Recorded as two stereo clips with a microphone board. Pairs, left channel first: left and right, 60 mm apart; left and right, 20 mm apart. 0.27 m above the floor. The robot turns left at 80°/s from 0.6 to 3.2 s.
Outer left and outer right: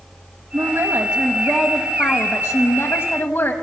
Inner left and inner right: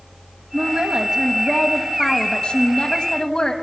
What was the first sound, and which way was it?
A woman speaking, 80° right.